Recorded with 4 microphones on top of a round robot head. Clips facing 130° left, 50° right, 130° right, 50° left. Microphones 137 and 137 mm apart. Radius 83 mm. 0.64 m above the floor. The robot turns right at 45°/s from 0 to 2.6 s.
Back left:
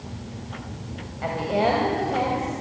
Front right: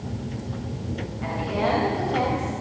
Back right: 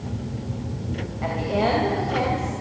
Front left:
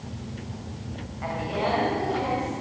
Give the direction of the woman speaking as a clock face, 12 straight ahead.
6 o'clock.